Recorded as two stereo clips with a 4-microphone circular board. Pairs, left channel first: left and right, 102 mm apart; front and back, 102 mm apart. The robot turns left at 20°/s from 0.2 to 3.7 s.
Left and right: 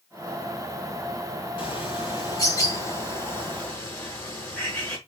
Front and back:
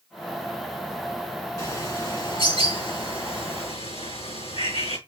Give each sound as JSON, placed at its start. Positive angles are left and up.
{"t": 1.6, "sound": "a bird", "azimuth_deg": 55, "distance_m": 5.0}